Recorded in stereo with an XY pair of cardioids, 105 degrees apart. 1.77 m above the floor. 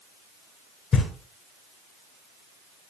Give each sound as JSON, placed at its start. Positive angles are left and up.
{"t": 0.9, "sound": "knocking", "azimuth_deg": 45, "distance_m": 9.0}